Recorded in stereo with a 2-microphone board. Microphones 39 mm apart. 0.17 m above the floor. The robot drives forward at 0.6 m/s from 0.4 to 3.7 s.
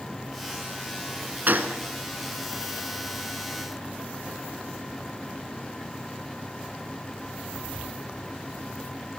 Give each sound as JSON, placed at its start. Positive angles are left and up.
{"t": 1.5, "sound": "a gunshot", "side_deg": -50, "distance_m": 0.9}